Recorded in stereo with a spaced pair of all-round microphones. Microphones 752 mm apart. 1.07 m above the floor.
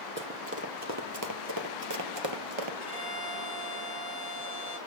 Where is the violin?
55° right (ahead or behind), 6 m.